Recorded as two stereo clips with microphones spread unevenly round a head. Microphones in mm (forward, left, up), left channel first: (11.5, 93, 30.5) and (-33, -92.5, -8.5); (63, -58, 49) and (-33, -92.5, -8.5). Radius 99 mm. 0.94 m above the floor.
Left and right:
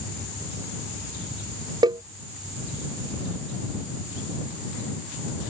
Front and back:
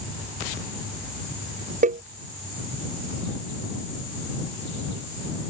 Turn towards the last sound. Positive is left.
turn(degrees=-175)